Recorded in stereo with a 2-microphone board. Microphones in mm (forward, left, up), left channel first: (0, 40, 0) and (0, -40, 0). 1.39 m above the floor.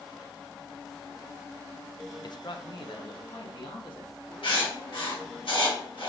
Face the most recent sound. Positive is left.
turn(degrees=85)